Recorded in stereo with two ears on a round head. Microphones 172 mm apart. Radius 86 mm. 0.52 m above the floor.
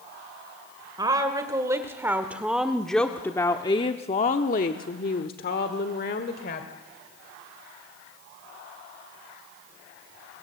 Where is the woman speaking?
20° right (ahead or behind), 1.9 m; by 6.7 s 50° left (ahead or behind), 1.9 m.